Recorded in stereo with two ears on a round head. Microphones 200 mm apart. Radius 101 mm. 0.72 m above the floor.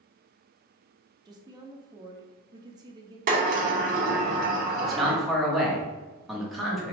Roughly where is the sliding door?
Right.